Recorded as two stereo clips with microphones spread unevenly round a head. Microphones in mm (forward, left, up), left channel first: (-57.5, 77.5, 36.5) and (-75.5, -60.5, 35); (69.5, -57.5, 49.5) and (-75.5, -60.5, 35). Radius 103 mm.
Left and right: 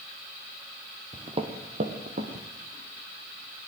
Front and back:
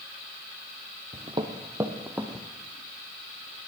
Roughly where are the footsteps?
Behind right.